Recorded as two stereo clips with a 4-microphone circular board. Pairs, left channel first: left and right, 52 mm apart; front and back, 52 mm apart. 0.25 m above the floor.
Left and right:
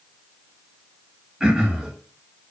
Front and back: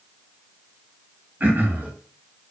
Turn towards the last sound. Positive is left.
turn(degrees=-155)